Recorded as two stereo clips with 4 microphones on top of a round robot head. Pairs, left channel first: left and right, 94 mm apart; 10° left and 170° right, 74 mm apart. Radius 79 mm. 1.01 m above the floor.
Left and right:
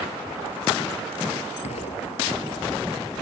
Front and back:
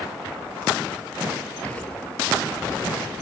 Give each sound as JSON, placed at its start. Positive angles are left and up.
{"t": 1.6, "sound": "an explosion", "azimuth_deg": 80}